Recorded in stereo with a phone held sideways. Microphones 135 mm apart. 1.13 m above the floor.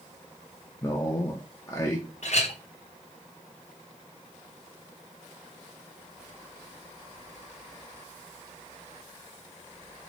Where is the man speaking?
30° left (ahead or behind), 0.8 m.